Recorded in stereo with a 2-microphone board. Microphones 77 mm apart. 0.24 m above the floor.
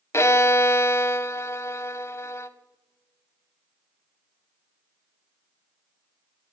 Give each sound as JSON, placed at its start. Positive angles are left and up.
{"t": 0.1, "sound": "a violin", "side_deg": 40, "distance_m": 0.5}